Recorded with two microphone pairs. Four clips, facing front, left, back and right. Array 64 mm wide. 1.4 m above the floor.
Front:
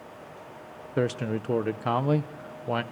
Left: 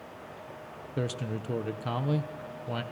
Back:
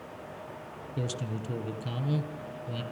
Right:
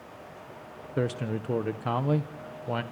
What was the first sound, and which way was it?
A man speaking, 15° right.